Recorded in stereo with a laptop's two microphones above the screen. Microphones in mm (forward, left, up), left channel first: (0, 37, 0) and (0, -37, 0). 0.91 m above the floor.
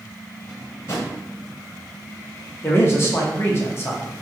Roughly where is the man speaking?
Left.